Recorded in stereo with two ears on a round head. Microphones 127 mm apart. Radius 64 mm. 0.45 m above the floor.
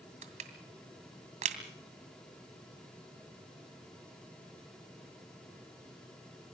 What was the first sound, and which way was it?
Crushing, 55° right (ahead or behind).